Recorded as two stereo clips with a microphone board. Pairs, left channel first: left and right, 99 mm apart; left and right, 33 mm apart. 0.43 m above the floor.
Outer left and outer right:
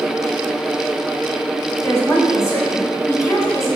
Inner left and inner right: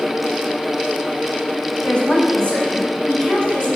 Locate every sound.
1.8 s a woman speaking: 30° left (ahead or behind), 1.7 m; by 3.7 s 35° left (ahead or behind), 3 m